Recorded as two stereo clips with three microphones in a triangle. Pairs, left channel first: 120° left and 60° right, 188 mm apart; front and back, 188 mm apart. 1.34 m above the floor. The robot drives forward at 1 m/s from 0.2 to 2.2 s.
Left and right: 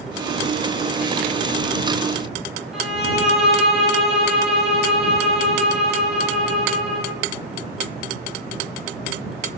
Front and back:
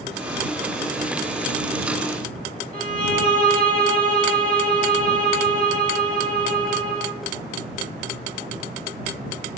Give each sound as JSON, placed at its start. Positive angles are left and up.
{"t": 2.7, "sound": "a violin", "azimuth_deg": -150, "distance_m": 2.5}